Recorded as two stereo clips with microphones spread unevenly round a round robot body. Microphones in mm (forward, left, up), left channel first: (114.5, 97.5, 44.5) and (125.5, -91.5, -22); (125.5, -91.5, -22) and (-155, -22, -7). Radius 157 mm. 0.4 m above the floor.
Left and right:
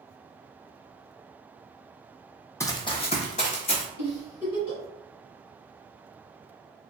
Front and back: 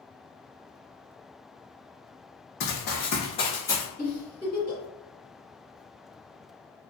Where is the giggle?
70° left, 1.7 m.